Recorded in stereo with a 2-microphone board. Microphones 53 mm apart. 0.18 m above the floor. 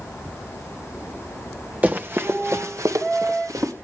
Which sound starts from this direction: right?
Running footsteps, at 1.8 s.